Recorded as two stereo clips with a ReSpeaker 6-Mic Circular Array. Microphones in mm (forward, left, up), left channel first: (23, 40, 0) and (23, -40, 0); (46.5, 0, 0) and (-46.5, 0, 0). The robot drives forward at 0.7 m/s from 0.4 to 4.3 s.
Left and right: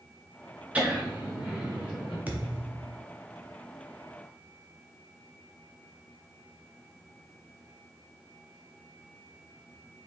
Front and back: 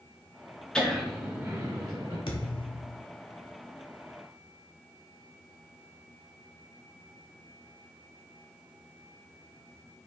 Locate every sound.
0.8 s laughter: 60° right, 0.8 m; by 2.2 s 165° right, 1.2 m
2.3 s a thud: 20° right, 0.9 m; by 3.0 s 45° right, 0.5 m